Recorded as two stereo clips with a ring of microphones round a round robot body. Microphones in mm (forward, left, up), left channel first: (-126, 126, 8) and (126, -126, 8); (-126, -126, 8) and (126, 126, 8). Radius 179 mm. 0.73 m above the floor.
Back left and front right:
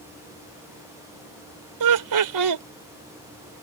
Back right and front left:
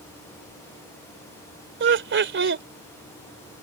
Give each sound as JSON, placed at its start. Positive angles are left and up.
{"t": 1.8, "sound": "laughter", "azimuth_deg": -10}